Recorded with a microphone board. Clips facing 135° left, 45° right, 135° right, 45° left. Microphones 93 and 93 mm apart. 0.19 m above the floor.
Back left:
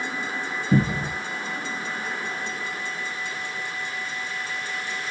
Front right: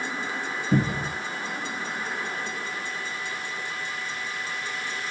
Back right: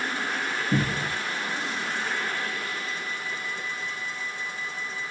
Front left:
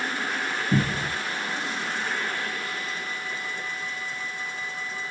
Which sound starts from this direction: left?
A cupboard door, at 0.7 s.